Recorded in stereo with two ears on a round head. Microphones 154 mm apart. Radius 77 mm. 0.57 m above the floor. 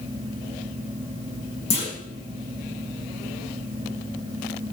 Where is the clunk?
40° left (ahead or behind), 7.5 m.